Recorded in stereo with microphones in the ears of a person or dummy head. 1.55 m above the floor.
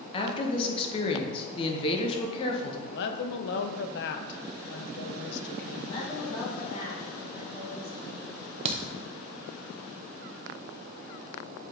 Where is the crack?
40° right (ahead or behind), 0.7 m.